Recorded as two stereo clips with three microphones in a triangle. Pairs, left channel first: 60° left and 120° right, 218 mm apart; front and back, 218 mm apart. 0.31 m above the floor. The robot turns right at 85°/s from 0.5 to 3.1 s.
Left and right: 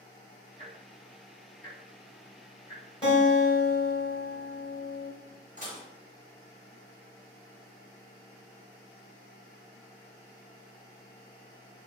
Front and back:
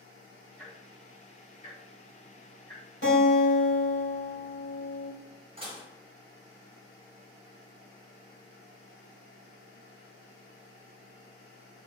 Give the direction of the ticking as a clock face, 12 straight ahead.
3 o'clock.